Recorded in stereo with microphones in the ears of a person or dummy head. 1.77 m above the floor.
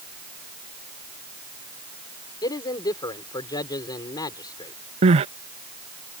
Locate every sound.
2.4 s a man speaking: 25° left (ahead or behind)
5.0 s crying: 40° right (ahead or behind)